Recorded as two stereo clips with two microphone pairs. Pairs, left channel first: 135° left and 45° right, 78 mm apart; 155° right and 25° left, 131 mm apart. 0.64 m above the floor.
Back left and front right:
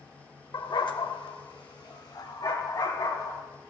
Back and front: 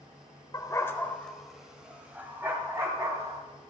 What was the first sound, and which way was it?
A dog barking, 150° left.